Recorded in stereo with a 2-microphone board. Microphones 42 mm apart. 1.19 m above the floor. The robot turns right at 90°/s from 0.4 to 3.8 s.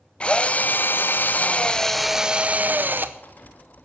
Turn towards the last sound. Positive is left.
turn(degrees=-15)